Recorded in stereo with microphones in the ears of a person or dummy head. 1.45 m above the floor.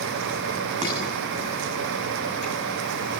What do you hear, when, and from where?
0.8 s dishes clattering: 35° right (ahead or behind), 7.5 m